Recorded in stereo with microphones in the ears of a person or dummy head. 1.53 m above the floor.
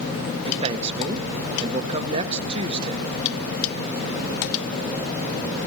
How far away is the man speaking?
About 1.7 m.